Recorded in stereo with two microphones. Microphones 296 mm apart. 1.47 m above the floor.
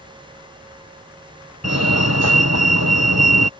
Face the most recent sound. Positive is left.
turn(degrees=-55)  # may be behind; listen again after turning